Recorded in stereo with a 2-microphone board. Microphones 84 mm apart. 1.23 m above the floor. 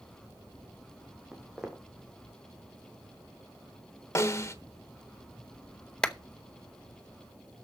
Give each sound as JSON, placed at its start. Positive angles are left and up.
{"t": 1.3, "sound": "footsteps", "side_deg": -5, "distance_m": 2.0}
{"t": 4.2, "sound": "a snare drum", "side_deg": 35, "distance_m": 1.1}
{"t": 6.0, "sound": "a clap", "side_deg": 10, "distance_m": 0.8}